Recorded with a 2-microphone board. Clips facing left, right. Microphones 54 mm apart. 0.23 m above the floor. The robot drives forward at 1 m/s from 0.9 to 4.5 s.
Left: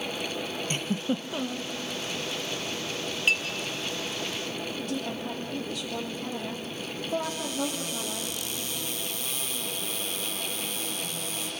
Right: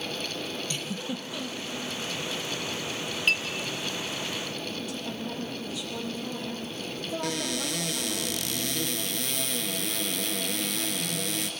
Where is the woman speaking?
50° left (ahead or behind), 7.5 m.